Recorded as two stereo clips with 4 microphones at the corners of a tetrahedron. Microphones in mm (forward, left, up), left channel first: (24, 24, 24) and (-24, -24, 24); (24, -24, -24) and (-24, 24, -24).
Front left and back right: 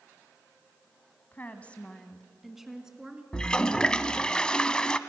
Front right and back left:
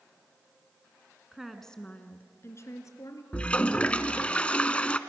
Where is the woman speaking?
60° left, 1.6 m; by 3.2 s 60° right, 2.5 m.